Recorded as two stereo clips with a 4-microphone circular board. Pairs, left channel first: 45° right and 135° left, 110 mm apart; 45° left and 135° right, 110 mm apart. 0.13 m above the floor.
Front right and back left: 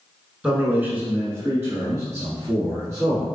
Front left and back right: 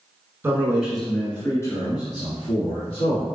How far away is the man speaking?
About 1.2 m.